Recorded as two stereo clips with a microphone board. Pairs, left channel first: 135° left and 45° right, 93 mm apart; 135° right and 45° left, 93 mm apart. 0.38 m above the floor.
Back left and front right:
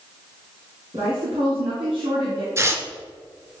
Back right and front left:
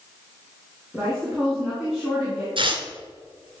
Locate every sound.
0.9 s a woman speaking: 40° right, 4 m
2.6 s tearing paper: 15° left, 1.5 m